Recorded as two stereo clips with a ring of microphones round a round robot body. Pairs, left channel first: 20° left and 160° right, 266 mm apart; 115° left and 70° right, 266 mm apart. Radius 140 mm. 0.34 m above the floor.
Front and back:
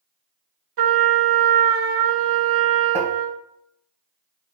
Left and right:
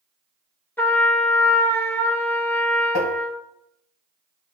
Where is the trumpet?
165° right, 1.1 m.